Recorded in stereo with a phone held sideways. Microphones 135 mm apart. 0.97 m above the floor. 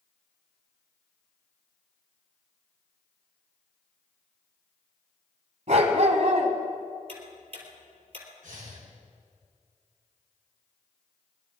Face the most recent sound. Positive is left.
turn(degrees=-70)  # may be behind; listen again after turning